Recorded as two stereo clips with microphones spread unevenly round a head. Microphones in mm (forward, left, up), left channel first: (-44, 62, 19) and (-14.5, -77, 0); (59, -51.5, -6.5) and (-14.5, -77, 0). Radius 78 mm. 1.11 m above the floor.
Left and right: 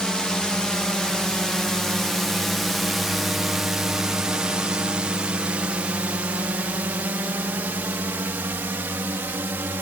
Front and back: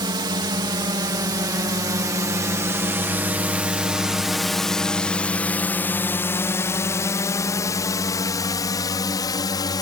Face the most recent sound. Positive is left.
turn(degrees=0)